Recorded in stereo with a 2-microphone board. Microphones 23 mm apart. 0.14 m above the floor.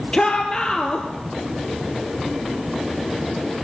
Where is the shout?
35° left (ahead or behind), 3 m.